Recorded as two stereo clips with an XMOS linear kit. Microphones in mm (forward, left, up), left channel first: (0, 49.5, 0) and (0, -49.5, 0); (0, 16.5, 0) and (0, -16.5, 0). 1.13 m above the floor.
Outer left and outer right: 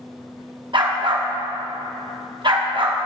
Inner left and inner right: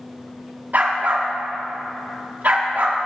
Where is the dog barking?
55° right (ahead or behind), 0.9 m.